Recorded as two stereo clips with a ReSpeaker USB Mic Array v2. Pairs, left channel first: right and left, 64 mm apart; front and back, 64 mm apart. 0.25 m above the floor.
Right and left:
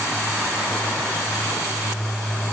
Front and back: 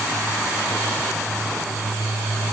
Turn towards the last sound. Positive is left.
No sound to turn to.